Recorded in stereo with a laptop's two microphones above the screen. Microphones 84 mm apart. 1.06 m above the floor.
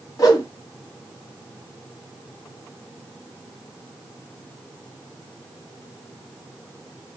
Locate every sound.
0.2 s a whoosh: 40° left (ahead or behind), 1.1 m